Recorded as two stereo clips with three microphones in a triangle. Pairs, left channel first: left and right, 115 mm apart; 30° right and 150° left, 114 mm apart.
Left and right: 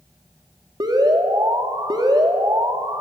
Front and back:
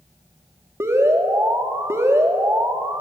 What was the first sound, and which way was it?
An alarm, 140° right.